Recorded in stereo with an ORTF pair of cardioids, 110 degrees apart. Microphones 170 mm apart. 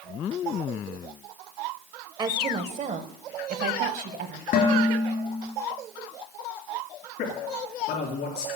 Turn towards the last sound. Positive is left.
turn(degrees=70)